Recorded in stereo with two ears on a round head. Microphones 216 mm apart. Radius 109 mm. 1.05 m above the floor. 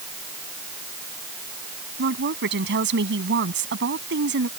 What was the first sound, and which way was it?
A woman speaking, 55° right (ahead or behind).